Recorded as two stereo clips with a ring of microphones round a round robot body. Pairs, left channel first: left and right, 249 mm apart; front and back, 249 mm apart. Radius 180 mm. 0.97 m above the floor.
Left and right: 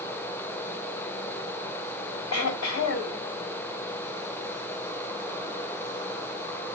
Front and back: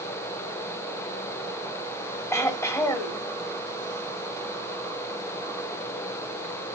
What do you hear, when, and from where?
2.3 s throat clearing: 80° left, 1.5 m